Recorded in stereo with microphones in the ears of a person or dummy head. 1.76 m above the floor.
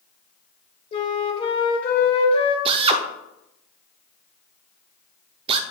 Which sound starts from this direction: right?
A drill, at 2.6 s.